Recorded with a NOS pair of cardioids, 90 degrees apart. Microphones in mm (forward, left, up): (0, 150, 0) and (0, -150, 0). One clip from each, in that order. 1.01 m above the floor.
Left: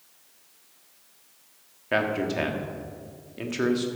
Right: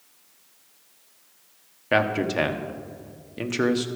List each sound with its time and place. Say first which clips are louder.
1.9 s a man speaking: right 3 dB; 25° right, 1.4 m